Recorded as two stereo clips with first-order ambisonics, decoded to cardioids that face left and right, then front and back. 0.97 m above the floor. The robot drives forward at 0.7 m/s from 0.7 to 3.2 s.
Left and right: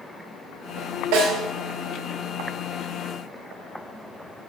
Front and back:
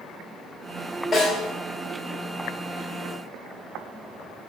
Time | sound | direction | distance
1.1 | a snare drum | 75° right | 2.5 m